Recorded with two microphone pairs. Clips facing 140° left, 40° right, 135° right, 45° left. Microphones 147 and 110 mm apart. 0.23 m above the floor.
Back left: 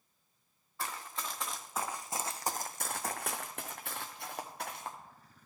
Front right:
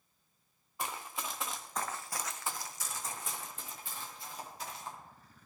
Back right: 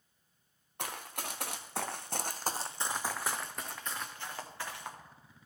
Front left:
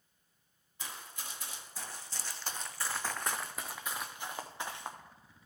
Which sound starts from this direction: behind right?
Running footsteps, at 0.8 s.